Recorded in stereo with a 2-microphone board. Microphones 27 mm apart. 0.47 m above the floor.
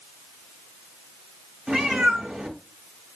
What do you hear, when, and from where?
1.7 s a cat meowing: 35° right (ahead or behind), 1.3 m